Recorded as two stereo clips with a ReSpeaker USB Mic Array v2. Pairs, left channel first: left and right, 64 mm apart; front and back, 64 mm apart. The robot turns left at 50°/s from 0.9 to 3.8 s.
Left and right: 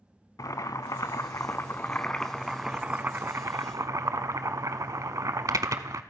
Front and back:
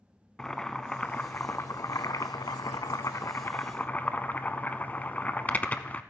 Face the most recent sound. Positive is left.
turn(degrees=-65)